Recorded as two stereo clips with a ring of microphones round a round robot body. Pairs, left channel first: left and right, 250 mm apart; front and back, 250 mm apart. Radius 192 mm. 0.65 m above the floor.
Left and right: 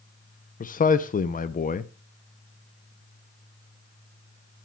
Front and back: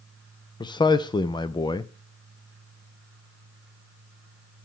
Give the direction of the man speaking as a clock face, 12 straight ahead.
10 o'clock.